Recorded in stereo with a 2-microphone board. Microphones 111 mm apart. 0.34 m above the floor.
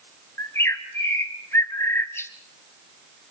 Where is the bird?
20° left (ahead or behind), 1.8 m.